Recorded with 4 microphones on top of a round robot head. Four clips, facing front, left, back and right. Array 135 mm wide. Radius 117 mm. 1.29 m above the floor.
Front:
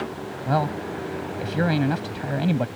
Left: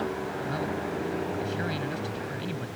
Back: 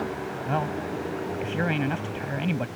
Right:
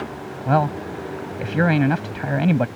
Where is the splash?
I don't hear a splash.